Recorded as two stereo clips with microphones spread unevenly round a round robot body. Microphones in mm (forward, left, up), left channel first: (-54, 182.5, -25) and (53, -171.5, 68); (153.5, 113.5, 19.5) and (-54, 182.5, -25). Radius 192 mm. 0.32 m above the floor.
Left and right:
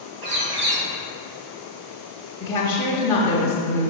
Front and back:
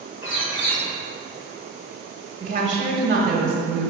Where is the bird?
45° right, 2 m.